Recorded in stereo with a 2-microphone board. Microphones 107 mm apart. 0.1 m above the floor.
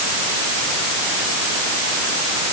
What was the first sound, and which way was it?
Only background noise.